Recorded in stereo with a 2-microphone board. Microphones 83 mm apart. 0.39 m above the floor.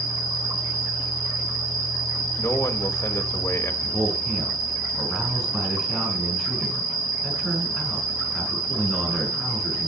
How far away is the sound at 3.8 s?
About 5 m.